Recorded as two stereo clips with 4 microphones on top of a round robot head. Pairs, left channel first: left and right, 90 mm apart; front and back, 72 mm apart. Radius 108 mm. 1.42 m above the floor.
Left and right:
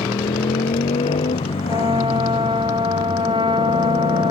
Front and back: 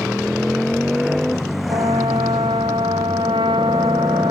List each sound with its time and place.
0.0 s a motorcycle: 95° left
1.7 s a trumpet: 140° right